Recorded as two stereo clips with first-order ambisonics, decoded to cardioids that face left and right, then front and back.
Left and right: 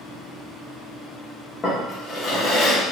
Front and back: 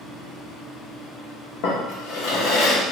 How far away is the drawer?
About 0.8 m.